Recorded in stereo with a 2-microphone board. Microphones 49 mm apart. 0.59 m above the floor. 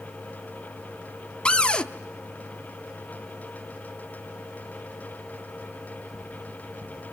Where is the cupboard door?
25° left (ahead or behind), 0.8 m.